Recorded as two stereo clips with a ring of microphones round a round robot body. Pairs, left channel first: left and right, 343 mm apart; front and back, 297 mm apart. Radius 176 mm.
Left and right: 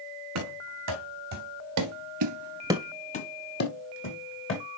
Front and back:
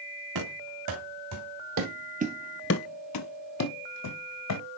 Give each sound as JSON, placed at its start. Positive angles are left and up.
{"t": 0.3, "sound": "running footsteps", "azimuth_deg": -135, "distance_m": 3.0}